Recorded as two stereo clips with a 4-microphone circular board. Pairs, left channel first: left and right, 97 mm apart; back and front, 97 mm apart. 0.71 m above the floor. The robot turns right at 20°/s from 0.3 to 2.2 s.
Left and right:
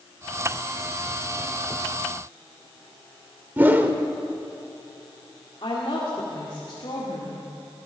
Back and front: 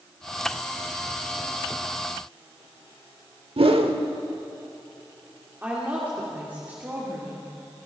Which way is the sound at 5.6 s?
70° left.